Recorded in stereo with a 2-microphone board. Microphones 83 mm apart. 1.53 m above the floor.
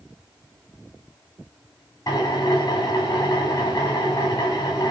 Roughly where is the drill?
Left.